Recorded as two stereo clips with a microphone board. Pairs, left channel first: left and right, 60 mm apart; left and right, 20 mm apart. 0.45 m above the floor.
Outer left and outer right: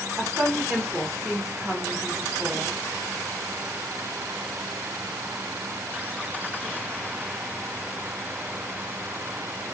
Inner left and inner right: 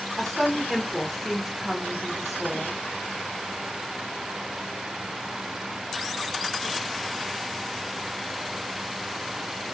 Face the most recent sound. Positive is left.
turn(degrees=-5)  # may be behind; listen again after turning